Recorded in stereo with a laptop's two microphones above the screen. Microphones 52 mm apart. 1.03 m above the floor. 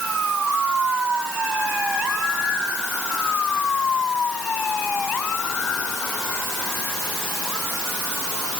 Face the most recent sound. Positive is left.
No sound to turn to.